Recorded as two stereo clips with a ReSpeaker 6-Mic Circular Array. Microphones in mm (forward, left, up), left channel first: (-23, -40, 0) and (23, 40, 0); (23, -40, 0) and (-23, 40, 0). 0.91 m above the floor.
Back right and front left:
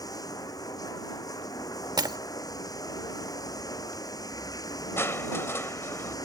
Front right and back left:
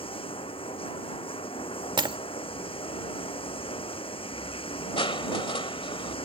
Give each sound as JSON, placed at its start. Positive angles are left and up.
{"t": 0.0, "sound": "running water", "azimuth_deg": -75}
{"t": 2.0, "sound": "breaking glass", "azimuth_deg": 95}
{"t": 5.0, "sound": "crushing", "azimuth_deg": -60}